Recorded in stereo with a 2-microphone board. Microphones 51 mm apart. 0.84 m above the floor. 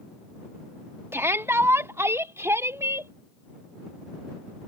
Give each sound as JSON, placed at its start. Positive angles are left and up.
{"t": 1.1, "sound": "a shout", "side_deg": -55}